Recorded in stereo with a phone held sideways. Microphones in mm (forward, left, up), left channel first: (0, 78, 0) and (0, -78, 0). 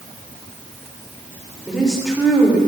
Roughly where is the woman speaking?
Centre.